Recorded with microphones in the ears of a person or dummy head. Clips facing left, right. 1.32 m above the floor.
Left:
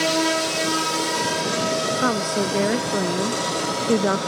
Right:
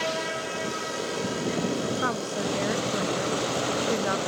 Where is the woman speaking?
50° left (ahead or behind).